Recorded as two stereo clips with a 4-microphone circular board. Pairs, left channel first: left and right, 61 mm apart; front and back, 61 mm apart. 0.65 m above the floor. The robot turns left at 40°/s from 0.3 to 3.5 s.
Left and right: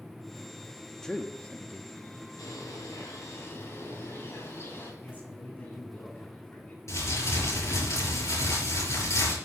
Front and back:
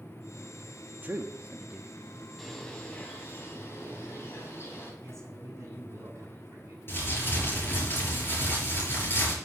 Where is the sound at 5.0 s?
145° left, 6.5 m.